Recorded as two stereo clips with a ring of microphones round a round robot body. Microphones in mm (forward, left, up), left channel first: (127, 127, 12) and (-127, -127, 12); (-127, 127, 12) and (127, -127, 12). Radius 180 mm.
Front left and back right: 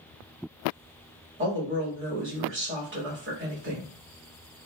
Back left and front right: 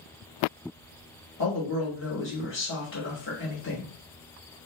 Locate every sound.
1.4 s a woman speaking: straight behind, 1.4 m